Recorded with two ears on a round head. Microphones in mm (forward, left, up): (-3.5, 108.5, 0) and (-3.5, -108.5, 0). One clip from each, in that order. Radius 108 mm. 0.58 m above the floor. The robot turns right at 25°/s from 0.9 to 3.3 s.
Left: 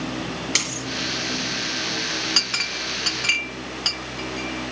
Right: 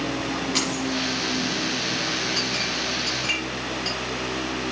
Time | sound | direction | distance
0.6 | a dropped coin | 55° left (ahead or behind) | 5.5 m
2.4 | a clink | 55° left (ahead or behind) | 0.6 m